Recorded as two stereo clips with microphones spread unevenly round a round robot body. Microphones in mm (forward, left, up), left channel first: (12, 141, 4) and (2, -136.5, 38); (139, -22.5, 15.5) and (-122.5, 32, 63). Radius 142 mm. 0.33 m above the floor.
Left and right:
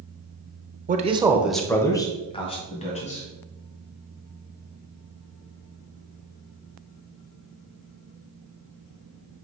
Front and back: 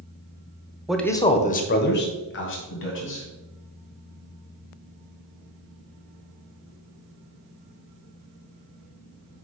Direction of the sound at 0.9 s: 80° right.